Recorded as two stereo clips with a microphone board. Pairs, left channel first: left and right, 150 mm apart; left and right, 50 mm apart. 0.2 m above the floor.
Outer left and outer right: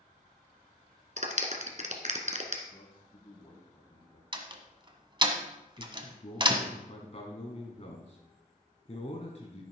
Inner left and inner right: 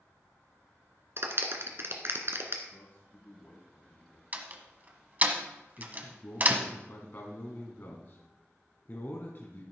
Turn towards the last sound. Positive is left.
turn(degrees=45)  # may be behind; listen again after turning